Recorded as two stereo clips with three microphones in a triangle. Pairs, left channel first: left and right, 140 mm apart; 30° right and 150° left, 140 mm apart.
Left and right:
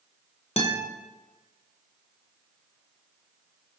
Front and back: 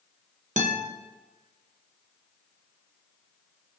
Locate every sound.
0.6 s a guitar: 130° left, 0.6 m